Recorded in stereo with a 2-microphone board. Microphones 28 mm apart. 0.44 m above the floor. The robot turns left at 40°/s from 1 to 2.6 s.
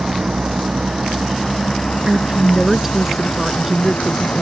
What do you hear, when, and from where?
0.0 s a vehicle: 25° right (ahead or behind); by 4.4 s 60° left (ahead or behind)
2.1 s a woman speaking: 35° right (ahead or behind); by 4.4 s 10° right (ahead or behind)